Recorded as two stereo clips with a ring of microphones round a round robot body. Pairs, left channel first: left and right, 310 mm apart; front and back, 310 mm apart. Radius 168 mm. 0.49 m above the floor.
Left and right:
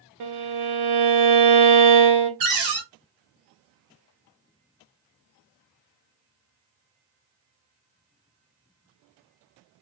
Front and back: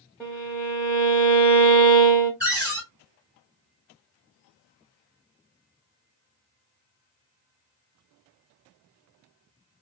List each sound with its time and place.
0.2 s a violin: 85° right, 0.8 m
2.4 s a cupboard door: 95° right, 2.0 m